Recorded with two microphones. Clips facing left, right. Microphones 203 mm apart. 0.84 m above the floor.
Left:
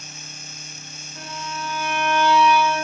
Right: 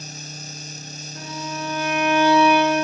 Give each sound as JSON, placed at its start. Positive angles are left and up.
{"t": 1.1, "sound": "a violin", "side_deg": -75, "distance_m": 3.0}